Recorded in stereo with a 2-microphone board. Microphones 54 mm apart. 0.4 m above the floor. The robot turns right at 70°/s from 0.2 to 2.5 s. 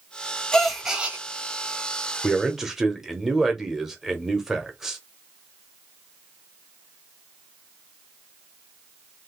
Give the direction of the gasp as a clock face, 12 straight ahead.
7 o'clock.